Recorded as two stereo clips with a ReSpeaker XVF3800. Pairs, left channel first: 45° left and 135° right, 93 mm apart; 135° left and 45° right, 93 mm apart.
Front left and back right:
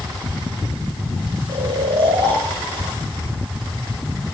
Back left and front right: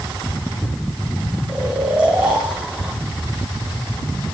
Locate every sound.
1.5 s snoring: 125° right, 4 m